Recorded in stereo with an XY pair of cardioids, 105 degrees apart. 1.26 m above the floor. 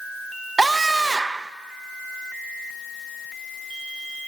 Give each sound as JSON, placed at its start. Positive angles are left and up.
{"t": 0.6, "sound": "a scream", "azimuth_deg": -20, "distance_m": 0.9}